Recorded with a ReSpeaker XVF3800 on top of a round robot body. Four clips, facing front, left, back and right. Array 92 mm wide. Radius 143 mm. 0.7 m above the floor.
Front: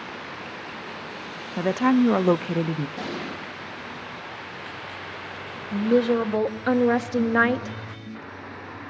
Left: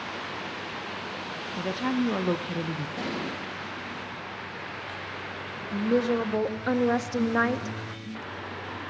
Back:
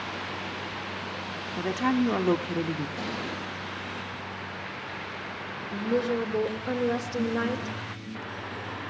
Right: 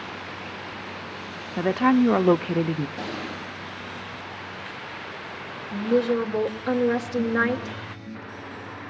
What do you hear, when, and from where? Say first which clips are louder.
1.6 s a woman speaking: right 9 dB, front 6 dB; 55° right, 0.6 m
3.0 s an explosion: even, front 2 dB; 55° left, 5.5 m
5.7 s a woman speaking: right 3 dB, front 7 dB; 15° left, 1.4 m